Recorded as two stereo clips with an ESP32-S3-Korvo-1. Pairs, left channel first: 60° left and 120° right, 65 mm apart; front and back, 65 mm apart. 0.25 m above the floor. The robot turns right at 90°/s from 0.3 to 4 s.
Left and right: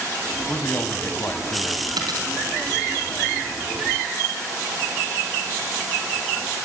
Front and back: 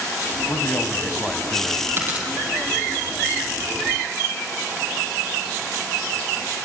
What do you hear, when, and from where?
0.5 s a man speaking: 15° left, 1.5 m; by 1.9 s 140° left, 1.5 m
2.0 s a dropped coin: 130° right, 3.5 m; by 2.3 s 105° right, 3.5 m